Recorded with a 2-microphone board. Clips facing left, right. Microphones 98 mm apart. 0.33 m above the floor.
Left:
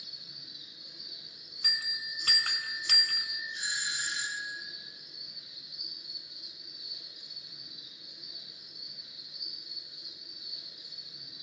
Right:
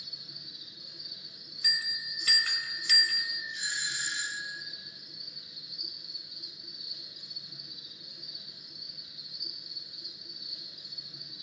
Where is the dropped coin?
I don't hear a dropped coin.